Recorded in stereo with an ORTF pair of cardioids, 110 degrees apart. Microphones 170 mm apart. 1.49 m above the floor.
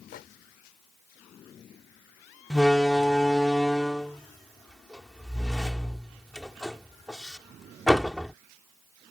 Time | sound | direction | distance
0.1 | a microwave | 65° left | ?
2.5 | a door slam | 5° left | ?